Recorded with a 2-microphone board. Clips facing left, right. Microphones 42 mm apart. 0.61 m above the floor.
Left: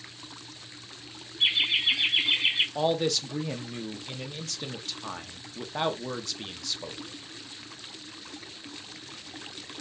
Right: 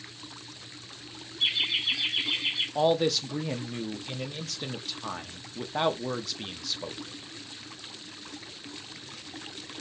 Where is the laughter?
30° left (ahead or behind), 3 m; by 2.6 s 50° left (ahead or behind), 2.5 m.